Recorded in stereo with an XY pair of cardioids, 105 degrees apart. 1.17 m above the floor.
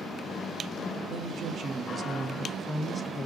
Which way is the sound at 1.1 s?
65° right.